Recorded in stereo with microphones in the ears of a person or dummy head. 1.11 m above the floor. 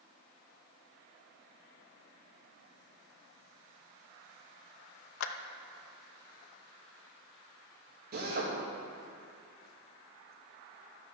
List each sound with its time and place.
5.2 s a clap: 75° left (ahead or behind), 0.7 m
8.1 s a drill: 55° right (ahead or behind), 1.9 m